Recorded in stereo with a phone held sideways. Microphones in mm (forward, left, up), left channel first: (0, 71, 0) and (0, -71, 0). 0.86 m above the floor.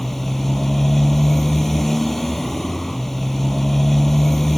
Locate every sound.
0.0 s a motorcycle: centre (ahead or behind)